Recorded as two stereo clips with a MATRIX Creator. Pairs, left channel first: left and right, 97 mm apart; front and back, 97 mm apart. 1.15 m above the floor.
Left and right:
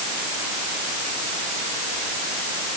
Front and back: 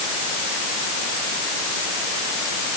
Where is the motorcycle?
I don't hear a motorcycle.